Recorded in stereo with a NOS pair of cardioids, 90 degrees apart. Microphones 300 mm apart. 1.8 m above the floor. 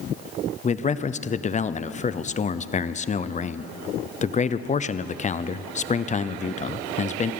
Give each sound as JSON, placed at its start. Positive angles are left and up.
{"t": 0.6, "sound": "a man speaking", "azimuth_deg": 25, "distance_m": 0.8}